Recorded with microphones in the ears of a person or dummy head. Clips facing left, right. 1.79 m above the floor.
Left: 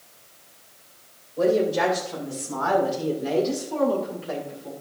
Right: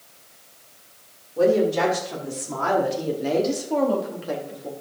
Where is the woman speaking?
85° right, 6.5 m; by 4.7 s 45° right (ahead or behind), 4 m.